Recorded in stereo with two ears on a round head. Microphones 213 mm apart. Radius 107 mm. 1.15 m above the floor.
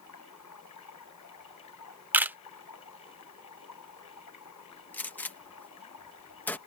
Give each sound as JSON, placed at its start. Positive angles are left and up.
{"t": 0.0, "sound": "running water", "side_deg": 80}
{"t": 2.1, "sound": "a camera shutter", "side_deg": -10}
{"t": 4.9, "sound": "a gunshot", "side_deg": 5}